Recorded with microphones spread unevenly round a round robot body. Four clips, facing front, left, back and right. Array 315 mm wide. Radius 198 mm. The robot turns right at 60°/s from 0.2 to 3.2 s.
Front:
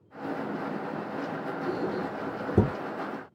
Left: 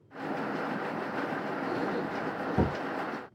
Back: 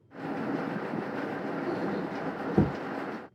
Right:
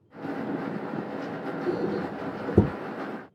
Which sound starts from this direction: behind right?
A squeak, at 1.7 s.